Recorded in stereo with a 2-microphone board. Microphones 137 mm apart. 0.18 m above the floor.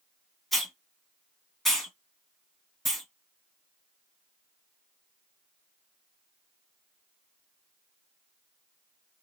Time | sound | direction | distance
0.5 | a hiss | centre (ahead or behind) | 1.4 m